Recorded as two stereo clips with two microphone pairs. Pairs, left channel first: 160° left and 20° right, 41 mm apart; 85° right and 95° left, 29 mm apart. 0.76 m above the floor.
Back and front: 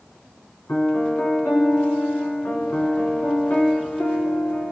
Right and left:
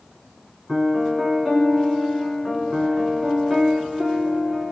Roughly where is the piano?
Behind.